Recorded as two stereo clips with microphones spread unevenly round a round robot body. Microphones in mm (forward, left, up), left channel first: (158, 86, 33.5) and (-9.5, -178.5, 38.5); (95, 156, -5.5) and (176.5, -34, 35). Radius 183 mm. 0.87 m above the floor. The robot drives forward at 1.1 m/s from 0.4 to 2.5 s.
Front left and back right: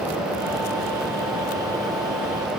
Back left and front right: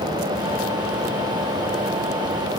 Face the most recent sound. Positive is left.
No sound to turn to.